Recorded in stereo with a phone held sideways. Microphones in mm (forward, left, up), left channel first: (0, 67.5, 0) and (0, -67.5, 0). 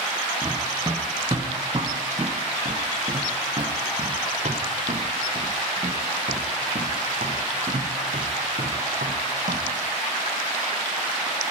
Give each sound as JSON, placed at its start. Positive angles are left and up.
{"t": 0.4, "sound": "running footsteps", "side_deg": -25, "distance_m": 6.5}